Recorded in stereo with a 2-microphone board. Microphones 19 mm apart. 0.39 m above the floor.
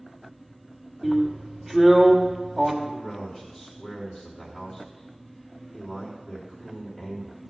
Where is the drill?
5° left (ahead or behind), 1.5 m.